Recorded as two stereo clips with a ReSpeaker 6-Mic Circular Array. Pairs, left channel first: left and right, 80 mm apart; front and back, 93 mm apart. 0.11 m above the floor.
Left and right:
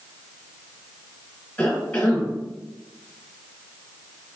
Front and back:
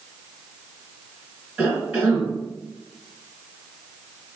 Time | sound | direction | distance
1.6 | a cough | 130° left | 1.3 m